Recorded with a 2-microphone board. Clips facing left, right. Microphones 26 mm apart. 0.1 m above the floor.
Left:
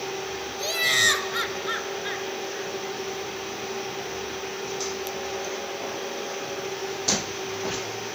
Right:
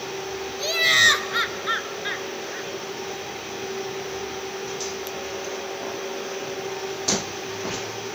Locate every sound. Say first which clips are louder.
0.6 s laughter: right 4 dB; 15° right (ahead or behind), 1.4 m